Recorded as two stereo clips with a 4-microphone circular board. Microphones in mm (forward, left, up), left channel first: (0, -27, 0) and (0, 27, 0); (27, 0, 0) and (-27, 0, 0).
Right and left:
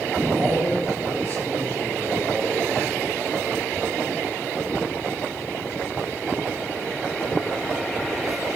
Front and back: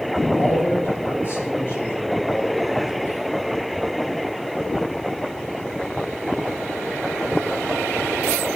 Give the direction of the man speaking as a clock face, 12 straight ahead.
2 o'clock.